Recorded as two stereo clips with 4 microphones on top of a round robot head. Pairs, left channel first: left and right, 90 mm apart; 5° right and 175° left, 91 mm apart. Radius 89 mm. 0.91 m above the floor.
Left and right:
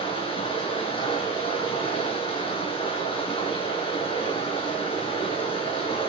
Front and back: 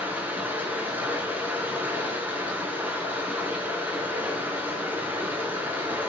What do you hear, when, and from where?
0.0 s running water: 105° left, 4 m